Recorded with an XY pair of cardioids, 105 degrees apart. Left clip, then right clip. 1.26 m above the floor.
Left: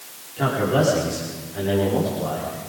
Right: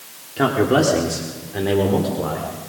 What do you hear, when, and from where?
0.4 s a man speaking: 60° right, 4 m; by 2.5 s 70° right, 5 m